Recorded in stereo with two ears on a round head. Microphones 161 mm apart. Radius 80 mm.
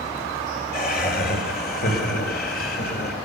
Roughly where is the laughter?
Left.